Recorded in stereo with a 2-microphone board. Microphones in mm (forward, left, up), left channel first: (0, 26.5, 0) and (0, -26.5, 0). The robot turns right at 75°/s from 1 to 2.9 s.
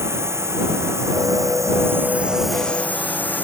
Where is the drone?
55° right (ahead or behind); by 3.4 s 35° left (ahead or behind).